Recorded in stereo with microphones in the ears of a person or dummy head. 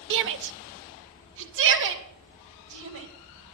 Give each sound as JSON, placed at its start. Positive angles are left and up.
{"t": 0.1, "sound": "a shout", "side_deg": -60, "distance_m": 0.6}